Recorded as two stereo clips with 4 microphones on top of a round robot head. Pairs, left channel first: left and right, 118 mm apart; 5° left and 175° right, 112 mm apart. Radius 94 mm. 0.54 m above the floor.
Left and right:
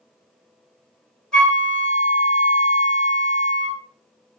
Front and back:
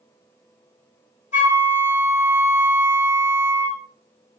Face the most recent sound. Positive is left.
turn(degrees=5)